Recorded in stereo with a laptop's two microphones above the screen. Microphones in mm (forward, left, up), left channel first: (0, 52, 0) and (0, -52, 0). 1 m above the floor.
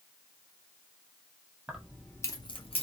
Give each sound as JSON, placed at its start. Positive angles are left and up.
{"t": 1.7, "sound": "keys jangling", "side_deg": -10, "distance_m": 0.9}